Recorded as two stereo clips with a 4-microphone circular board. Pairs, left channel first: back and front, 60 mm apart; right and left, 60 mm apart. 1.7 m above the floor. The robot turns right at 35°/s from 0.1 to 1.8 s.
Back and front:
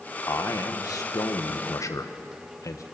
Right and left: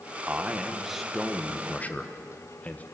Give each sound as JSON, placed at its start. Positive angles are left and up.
{"t": 0.3, "sound": "a man speaking", "azimuth_deg": 150, "distance_m": 1.4}